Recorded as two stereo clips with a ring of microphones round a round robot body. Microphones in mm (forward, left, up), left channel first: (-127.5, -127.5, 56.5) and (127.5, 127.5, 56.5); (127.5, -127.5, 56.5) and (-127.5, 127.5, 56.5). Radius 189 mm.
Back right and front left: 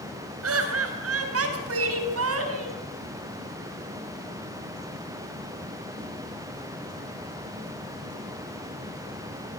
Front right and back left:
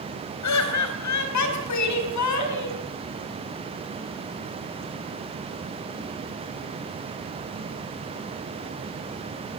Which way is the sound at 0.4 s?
5° right.